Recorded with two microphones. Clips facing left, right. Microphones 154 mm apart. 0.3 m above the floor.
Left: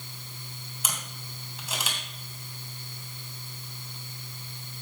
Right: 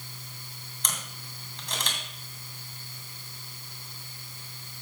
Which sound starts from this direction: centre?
A camera shutter, at 0.8 s.